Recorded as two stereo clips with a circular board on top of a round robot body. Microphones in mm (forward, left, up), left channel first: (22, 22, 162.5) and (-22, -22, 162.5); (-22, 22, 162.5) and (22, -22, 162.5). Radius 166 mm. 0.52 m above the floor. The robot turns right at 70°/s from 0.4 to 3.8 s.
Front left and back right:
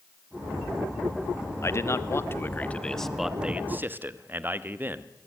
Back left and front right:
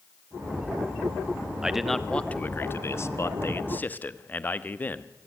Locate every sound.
1.6 s a man speaking: 30° left, 1.6 m; by 5.1 s 175° right, 1.6 m